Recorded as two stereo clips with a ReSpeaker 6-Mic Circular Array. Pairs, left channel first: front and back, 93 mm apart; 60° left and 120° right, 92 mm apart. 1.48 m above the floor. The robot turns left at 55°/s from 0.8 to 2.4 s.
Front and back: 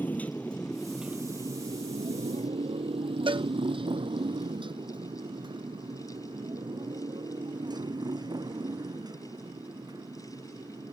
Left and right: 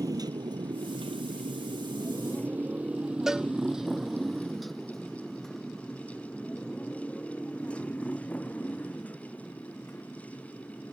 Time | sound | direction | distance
0.0 | a motorcycle | 70° right | ?
3.3 | a cowbell | 155° left | ?